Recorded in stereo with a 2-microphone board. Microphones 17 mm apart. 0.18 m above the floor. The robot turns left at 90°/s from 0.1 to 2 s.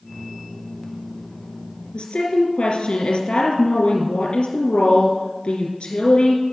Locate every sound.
1.9 s a woman speaking: 75° left (ahead or behind), 3.5 m